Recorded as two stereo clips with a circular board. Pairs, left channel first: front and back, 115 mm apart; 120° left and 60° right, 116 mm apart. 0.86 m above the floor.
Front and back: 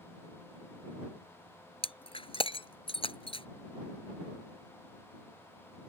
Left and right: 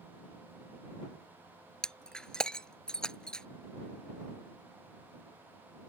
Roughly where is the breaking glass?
Ahead left.